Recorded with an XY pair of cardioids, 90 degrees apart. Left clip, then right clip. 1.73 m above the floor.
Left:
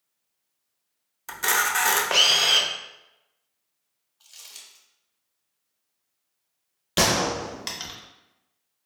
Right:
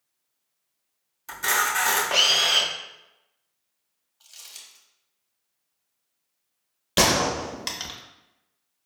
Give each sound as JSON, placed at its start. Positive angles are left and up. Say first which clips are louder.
{"t": 1.3, "sound": "a camera shutter", "louder": "even", "azimuth_deg": 40, "distance_m": 0.6}
{"t": 4.2, "sound": "crumpling", "louder": "right 1 dB", "azimuth_deg": 0, "distance_m": 1.1}
{"t": 7.0, "sound": "a gunshot", "louder": "right 1 dB", "azimuth_deg": -10, "distance_m": 0.6}